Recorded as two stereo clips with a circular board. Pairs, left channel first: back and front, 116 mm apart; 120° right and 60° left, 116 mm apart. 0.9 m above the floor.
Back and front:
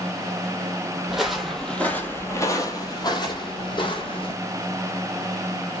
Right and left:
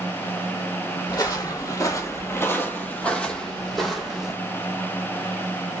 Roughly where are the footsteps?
Right.